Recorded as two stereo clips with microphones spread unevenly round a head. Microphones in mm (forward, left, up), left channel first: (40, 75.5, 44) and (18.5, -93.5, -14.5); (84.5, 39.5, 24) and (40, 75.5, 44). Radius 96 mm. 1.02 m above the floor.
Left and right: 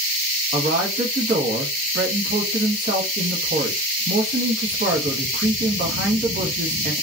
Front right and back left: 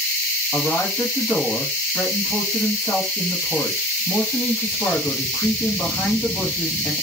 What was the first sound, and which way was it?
A man speaking, 140° right.